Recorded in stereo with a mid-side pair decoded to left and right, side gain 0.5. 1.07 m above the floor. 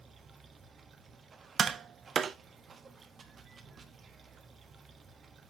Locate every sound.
0.0 s running water: 40° right, 1.1 m
1.6 s tapping: 45° right, 0.5 m